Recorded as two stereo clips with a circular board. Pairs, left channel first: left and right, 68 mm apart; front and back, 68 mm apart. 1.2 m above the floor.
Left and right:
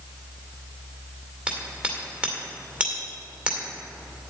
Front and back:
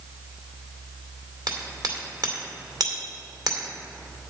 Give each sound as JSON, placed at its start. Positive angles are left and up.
{"t": 1.5, "sound": "hammering", "azimuth_deg": -160, "distance_m": 2.0}